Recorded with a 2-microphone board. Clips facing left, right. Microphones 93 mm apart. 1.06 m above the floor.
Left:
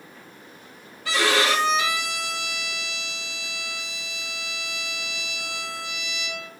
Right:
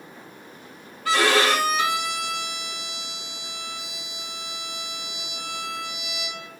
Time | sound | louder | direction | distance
1.1 | a violin | right 2 dB | 45° right (ahead or behind) | 3 m